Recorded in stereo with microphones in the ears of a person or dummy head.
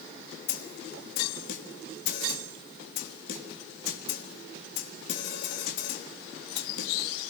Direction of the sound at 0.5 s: 60° left (ahead or behind).